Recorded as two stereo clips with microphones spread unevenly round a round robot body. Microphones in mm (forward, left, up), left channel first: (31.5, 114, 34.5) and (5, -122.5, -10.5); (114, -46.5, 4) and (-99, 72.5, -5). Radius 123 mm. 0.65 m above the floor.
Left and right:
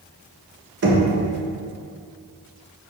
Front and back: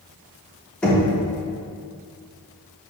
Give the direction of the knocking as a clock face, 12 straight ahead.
4 o'clock.